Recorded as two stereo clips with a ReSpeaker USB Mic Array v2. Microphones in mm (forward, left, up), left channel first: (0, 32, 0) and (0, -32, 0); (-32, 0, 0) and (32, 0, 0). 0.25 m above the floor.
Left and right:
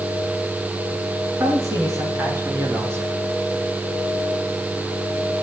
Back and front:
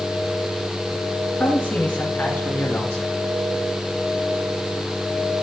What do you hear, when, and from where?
1.4 s a man speaking: 120° right, 3 m; by 3.1 s 135° right, 4 m